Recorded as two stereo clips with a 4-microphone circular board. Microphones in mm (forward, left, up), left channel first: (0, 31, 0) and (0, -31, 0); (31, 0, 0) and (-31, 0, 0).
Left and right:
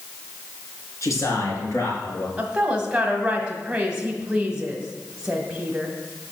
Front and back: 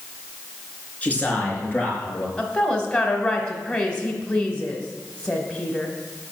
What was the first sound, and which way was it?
A man speaking, 65° left.